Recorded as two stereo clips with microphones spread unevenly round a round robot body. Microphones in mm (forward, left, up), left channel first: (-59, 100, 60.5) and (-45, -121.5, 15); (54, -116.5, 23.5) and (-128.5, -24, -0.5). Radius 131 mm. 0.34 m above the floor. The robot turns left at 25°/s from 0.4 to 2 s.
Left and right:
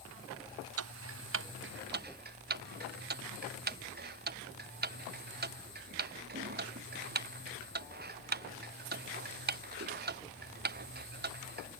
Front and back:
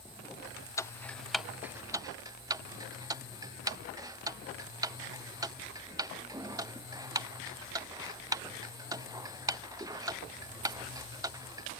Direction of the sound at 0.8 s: 105° right.